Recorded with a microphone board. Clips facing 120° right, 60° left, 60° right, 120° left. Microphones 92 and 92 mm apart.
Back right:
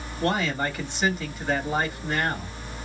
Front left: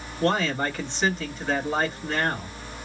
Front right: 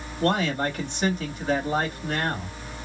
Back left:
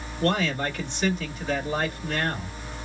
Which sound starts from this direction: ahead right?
A man speaking, at 0.2 s.